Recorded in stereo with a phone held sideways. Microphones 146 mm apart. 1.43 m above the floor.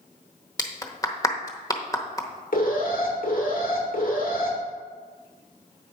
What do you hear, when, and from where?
0.6 s a clap: 25° left (ahead or behind), 0.9 m
2.5 s an alarm: 70° left (ahead or behind), 2 m